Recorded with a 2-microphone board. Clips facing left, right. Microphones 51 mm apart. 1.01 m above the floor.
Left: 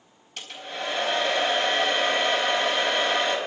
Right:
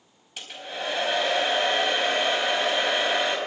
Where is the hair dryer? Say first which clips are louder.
Even; 10° right (ahead or behind), 4.5 m.